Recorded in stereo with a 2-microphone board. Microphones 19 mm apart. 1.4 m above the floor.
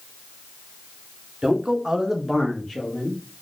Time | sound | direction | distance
1.4 | a man speaking | 45° right (ahead or behind) | 0.7 m